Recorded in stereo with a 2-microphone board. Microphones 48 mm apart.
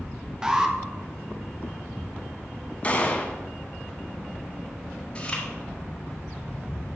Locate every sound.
0.4 s an alarm: 15° right (ahead or behind), 0.9 m
2.8 s a gunshot: 30° left (ahead or behind), 1.4 m
5.2 s chewing: 20° left (ahead or behind), 4 m